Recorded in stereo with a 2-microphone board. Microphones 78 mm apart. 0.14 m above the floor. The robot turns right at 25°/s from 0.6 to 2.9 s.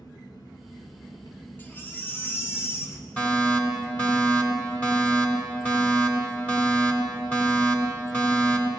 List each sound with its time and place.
0.0 s an engine running: 90° left, 1.4 m; by 8.8 s 150° left, 1.4 m
1.6 s a baby crying: 55° left, 1.1 m; by 3.1 s 85° left, 1.1 m
3.2 s a fire alarm: 20° left (ahead or behind), 2.5 m